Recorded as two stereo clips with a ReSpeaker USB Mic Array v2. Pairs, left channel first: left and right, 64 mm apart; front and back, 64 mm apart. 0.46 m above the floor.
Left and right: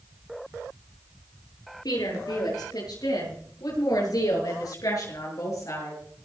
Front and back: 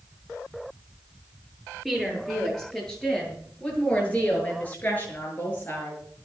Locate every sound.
1.9 s a woman speaking: 90° left, 7.5 m; by 6.0 s 55° left, 7.5 m